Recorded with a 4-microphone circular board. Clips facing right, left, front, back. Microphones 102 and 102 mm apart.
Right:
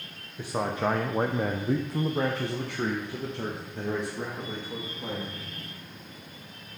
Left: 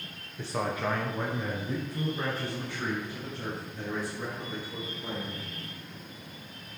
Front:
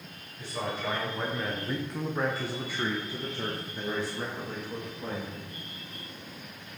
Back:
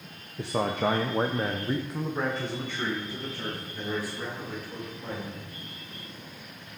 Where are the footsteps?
I don't hear footsteps.